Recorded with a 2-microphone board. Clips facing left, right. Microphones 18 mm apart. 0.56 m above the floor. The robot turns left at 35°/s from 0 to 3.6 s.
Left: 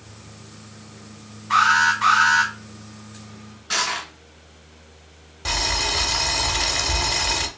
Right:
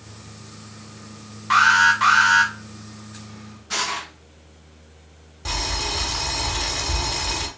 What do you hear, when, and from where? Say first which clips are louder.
1.5 s an alarm: right 2 dB; 120° right, 1.3 m; by 2.5 s 155° right, 1.3 m
3.7 s crushing: left 2 dB; 50° left (ahead or behind), 2.0 m
5.5 s boiling: left 3 dB; 30° left (ahead or behind), 0.8 m